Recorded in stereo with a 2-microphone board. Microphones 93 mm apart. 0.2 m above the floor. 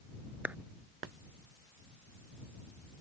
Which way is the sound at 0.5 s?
15° right (ahead or behind).